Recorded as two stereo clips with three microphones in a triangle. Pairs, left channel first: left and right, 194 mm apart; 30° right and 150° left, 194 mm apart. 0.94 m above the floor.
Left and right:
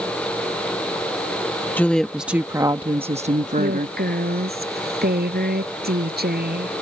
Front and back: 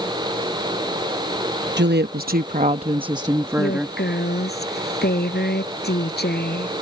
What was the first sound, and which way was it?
A woman speaking, 170° left.